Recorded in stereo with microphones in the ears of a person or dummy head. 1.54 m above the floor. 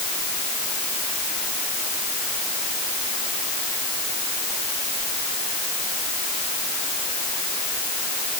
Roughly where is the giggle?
I don't hear a giggle.